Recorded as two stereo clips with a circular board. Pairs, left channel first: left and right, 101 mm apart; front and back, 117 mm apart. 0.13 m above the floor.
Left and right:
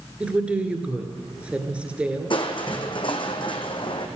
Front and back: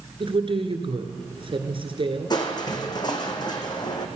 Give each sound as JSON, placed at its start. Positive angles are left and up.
{"t": 0.2, "sound": "a woman speaking", "azimuth_deg": -165, "distance_m": 1.8}
{"t": 2.3, "sound": "crushing", "azimuth_deg": 55, "distance_m": 1.5}